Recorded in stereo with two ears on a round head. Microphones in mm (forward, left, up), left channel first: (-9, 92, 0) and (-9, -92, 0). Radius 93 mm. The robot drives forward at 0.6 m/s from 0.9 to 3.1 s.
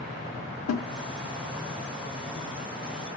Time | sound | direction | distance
0.7 | a snare drum | 75° left (ahead or behind) | 0.5 m